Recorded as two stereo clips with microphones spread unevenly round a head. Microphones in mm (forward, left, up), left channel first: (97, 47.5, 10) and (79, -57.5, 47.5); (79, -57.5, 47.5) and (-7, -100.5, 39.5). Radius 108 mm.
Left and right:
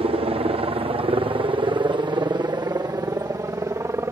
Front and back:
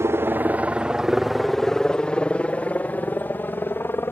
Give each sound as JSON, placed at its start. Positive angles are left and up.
{"t": 0.0, "sound": "a helicopter", "azimuth_deg": -120}